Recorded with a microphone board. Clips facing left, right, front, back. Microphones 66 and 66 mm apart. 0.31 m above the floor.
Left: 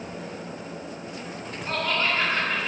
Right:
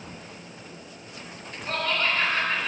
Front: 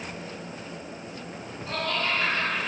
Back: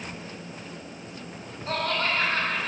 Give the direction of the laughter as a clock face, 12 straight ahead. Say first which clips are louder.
Left 1 dB, back 2 dB; 7 o'clock.